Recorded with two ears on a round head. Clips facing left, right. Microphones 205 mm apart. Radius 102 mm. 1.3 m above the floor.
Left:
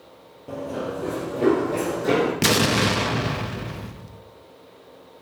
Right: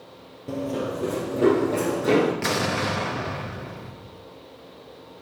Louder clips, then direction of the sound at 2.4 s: Left 5 dB; 45° left (ahead or behind).